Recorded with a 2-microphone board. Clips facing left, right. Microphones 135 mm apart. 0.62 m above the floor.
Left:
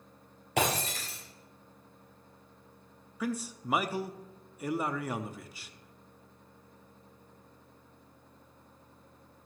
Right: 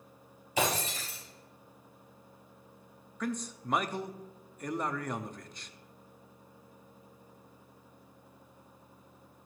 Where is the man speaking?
5° left (ahead or behind), 0.6 m.